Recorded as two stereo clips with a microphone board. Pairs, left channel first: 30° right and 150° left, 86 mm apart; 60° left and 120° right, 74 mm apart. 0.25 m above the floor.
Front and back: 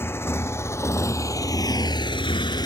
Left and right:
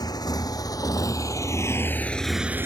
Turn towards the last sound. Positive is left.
turn(degrees=-65)